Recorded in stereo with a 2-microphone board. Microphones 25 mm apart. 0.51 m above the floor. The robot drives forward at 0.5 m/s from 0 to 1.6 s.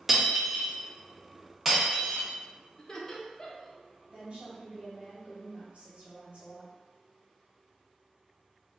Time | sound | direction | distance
0.1 | breaking glass | 10° right (ahead or behind) | 0.7 m
2.8 | laughter | 25° left (ahead or behind) | 0.7 m
4.1 | a woman speaking | 40° right (ahead or behind) | 1.8 m